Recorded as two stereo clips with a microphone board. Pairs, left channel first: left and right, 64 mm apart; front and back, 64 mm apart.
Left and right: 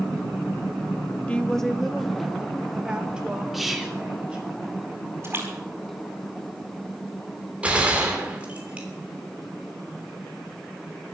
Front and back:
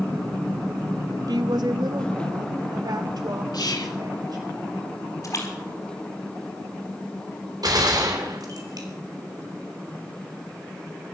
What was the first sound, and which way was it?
A woman speaking, 160° left.